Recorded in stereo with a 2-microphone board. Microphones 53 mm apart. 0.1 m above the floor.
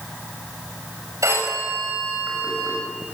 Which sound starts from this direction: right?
A phone ringing, at 1.2 s.